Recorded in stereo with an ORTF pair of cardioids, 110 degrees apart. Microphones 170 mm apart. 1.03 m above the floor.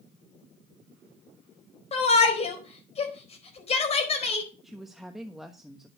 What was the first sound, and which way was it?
A shout, 40° left.